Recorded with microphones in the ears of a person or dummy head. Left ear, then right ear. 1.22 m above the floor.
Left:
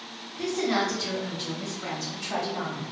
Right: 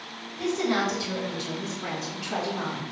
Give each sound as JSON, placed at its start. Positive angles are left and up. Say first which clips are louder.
{"t": 0.4, "sound": "a woman speaking", "louder": "even", "side_deg": 30, "distance_m": 2.0}